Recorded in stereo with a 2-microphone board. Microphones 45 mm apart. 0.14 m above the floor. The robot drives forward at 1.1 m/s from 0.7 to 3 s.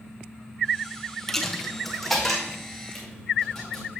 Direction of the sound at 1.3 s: 5° left (ahead or behind).